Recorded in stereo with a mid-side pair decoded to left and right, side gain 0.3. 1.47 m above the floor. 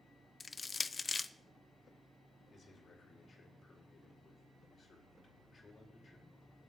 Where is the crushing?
35° left, 0.6 m.